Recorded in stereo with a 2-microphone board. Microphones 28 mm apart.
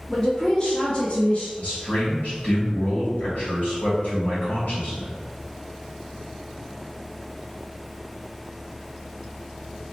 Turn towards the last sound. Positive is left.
turn(degrees=65)  # may be behind; listen again after turning